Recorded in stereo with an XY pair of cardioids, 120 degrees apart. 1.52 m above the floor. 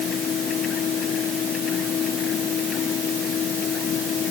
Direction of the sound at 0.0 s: 50° left.